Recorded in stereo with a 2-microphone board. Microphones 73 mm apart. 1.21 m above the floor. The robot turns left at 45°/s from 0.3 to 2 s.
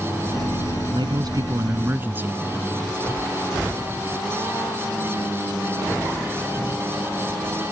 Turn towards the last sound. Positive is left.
turn(degrees=-155)